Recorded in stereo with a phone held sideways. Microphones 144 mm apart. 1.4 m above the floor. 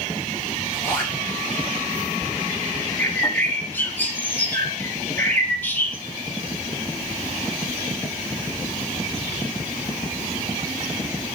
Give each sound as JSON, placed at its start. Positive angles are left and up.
{"t": 0.7, "sound": "a zipper", "side_deg": 15, "distance_m": 7.5}
{"t": 3.0, "sound": "a bird", "side_deg": 15, "distance_m": 1.9}